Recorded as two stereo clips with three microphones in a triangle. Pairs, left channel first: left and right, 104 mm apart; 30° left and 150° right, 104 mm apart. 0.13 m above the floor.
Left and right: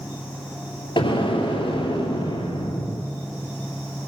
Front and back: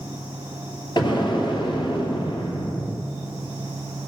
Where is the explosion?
65° left, 2.5 m.